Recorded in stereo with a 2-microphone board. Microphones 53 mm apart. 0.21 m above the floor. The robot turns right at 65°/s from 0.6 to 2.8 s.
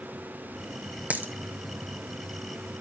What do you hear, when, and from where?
1.1 s a dropped coin: 30° right (ahead or behind), 1.8 m; by 1.3 s 45° right (ahead or behind), 1.8 m